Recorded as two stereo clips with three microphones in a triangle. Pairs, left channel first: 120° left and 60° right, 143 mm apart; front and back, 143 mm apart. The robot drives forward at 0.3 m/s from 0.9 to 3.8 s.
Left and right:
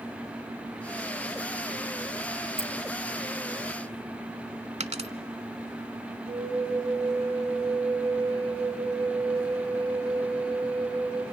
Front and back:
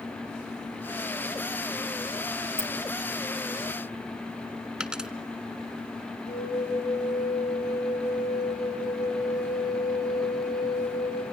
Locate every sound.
2.6 s keys jangling: 50° left, 1.4 m
4.8 s a dropped coin: 95° right, 0.8 m
6.3 s a flute: 15° right, 5.5 m